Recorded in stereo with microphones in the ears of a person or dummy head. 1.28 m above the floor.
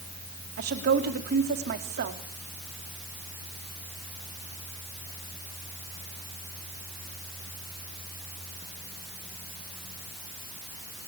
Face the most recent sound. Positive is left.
turn(degrees=-50)  # may be behind; listen again after turning